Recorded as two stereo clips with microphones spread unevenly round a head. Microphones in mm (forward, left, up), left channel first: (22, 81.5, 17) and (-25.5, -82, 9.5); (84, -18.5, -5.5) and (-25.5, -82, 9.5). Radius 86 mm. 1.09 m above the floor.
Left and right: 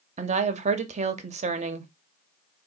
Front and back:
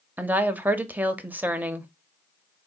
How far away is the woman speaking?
About 0.6 m.